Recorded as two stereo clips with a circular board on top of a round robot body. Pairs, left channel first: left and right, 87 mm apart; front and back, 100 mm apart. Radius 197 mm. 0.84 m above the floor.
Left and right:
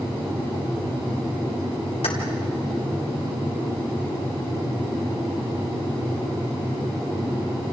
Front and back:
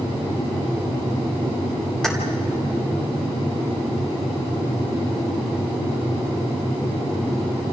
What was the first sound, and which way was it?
Keys jangling, 85° left.